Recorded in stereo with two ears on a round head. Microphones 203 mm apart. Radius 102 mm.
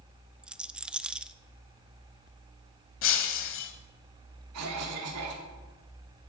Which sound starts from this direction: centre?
A rattle, at 0.4 s.